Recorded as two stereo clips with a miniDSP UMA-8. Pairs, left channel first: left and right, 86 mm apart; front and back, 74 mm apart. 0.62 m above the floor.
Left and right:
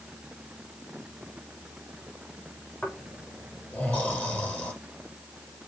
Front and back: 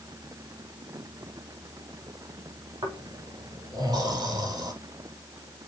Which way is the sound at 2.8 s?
165° left.